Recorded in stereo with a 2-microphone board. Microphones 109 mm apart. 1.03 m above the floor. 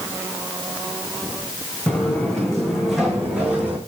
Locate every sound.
1.9 s footsteps: 10° left (ahead or behind), 5.5 m; by 3.8 s 15° right (ahead or behind), 5 m